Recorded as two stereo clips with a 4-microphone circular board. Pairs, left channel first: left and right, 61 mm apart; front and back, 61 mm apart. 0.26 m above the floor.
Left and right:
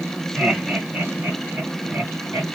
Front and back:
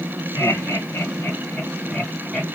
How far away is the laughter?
About 2 m.